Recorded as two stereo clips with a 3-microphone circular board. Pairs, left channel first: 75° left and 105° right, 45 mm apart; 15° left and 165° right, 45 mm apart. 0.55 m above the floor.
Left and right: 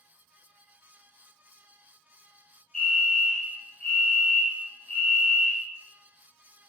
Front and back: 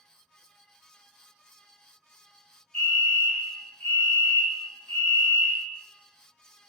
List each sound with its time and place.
2.7 s a fire alarm: 60° left, 1.7 m